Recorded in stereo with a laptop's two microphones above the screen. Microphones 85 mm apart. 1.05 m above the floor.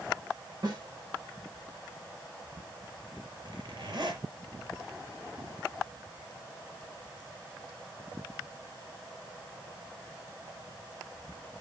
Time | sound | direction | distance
0.6 | a snare drum | 50° right (ahead or behind) | 9.5 m
3.5 | a zipper | 55° right (ahead or behind) | 6.5 m